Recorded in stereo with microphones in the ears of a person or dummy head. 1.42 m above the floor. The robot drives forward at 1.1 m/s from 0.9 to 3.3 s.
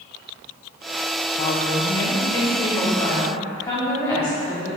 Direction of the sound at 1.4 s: 45° left (ahead or behind).